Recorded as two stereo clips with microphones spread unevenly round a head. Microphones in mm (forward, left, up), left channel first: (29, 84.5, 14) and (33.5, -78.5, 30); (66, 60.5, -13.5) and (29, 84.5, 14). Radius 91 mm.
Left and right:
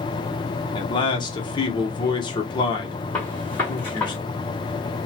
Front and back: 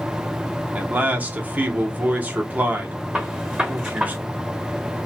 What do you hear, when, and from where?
0.7 s a man speaking: 65° left, 0.9 m
3.1 s a gunshot: 175° left, 0.9 m